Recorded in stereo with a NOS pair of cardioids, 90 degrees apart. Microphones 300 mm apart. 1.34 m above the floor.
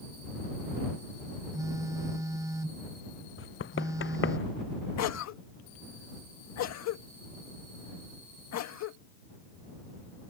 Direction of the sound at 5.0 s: 60° left.